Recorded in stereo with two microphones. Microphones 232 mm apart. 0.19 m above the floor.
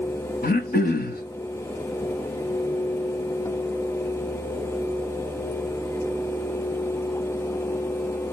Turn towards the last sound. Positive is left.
turn(degrees=40)  # may be behind; listen again after turning